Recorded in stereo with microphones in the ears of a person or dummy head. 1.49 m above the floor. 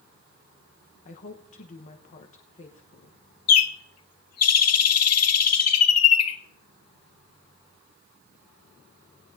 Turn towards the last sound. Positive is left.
turn(degrees=85)